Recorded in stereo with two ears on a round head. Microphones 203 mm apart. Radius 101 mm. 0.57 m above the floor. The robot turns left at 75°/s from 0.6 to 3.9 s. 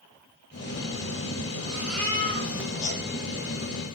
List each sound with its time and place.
1.7 s a baby crying: 160° right, 10 m; by 3.0 s 95° left, 10 m